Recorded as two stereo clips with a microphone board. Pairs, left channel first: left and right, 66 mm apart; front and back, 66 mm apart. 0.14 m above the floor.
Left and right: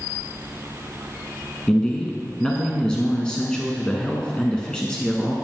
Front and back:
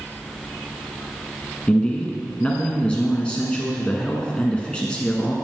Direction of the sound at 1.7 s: 40° left.